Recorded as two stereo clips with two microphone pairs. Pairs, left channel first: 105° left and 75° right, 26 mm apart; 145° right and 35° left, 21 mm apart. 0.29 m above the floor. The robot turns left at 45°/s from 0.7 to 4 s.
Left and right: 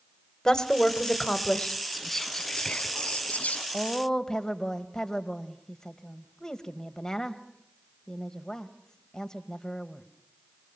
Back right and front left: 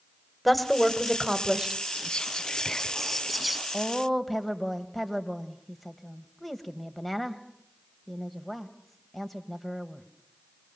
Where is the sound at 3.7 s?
160° left, 1.4 m; by 10.1 s 145° left, 1.4 m.